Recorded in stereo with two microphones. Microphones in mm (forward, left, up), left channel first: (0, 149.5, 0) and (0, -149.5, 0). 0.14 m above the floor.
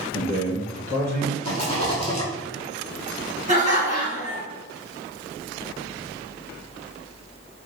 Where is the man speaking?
30° left (ahead or behind), 1.5 m; by 1.3 s 10° left (ahead or behind), 1.9 m.